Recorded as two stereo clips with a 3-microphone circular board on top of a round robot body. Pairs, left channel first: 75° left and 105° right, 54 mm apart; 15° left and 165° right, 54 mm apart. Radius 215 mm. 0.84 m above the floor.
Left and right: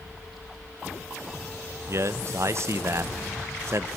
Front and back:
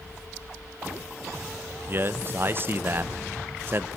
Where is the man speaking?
125° right, 1.6 m.